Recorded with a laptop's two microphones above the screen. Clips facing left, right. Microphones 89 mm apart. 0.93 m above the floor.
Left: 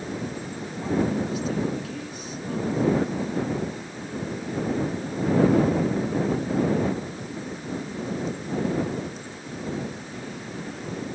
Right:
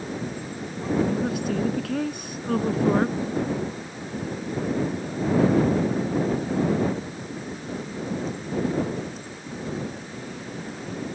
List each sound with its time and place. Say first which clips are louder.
1.1 s a woman speaking: right 1 dB; 60° right (ahead or behind)